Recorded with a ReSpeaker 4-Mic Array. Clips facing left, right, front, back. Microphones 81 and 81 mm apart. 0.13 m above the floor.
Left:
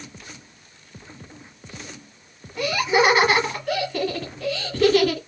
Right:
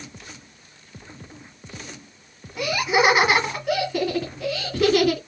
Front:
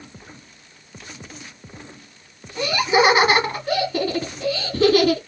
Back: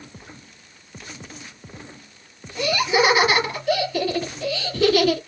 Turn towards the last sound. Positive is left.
turn(degrees=-10)